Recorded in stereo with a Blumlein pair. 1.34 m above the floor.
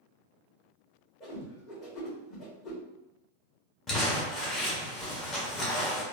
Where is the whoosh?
30° left, 1.4 m.